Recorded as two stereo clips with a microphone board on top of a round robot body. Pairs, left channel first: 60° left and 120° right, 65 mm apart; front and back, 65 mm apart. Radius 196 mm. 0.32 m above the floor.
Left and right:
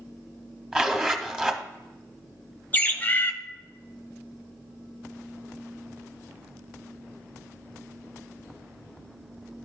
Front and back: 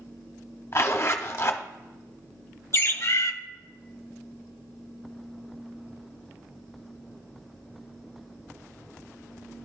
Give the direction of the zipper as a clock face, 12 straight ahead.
1 o'clock.